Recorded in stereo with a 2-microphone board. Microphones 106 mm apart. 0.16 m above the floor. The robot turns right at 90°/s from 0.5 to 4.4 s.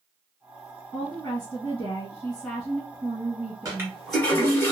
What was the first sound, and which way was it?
A woman speaking, 25° left.